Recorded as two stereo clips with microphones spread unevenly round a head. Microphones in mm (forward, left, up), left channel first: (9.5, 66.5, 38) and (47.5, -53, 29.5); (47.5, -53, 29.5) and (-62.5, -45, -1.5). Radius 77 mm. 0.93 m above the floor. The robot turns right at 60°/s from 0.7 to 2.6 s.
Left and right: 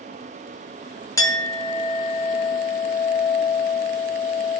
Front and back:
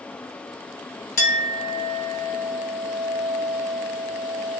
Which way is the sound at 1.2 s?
40° left.